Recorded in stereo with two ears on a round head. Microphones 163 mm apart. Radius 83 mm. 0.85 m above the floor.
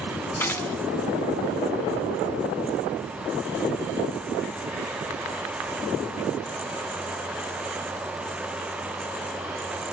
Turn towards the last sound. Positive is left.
turn(degrees=10)  # may be behind; listen again after turning